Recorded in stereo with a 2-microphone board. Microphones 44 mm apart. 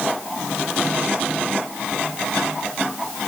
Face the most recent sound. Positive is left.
No sound to turn to.